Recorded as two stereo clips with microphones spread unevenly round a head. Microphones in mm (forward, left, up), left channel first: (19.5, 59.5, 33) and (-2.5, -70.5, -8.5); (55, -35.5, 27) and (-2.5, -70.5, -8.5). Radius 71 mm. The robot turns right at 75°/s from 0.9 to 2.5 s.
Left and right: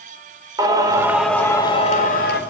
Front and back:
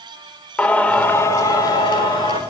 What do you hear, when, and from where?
0.6 s singing: 30° right, 4 m; by 2.4 s 80° left, 4 m